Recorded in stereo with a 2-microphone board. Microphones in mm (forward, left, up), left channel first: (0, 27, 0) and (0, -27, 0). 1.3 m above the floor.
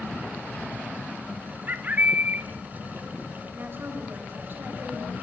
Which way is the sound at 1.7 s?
30° right (ahead or behind).